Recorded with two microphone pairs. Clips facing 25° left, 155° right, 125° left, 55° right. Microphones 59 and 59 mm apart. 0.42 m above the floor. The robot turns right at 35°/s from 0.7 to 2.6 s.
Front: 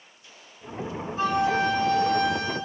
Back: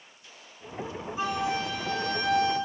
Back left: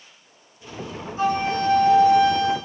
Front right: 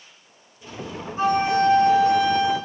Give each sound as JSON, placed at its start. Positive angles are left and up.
{"t": 1.2, "sound": "a flute", "azimuth_deg": -80, "distance_m": 1.8}